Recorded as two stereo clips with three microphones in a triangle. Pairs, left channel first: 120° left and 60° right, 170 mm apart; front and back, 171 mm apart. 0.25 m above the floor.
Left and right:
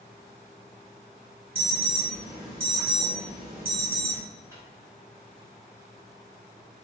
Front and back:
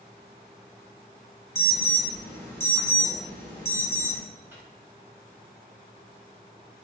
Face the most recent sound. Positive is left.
turn(degrees=-115)